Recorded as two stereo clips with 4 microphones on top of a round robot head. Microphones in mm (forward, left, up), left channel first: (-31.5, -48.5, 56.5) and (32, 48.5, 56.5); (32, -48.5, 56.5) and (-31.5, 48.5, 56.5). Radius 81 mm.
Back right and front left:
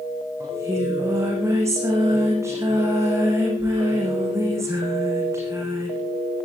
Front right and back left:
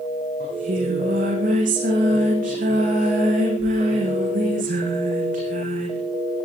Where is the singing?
125° left, 8 m.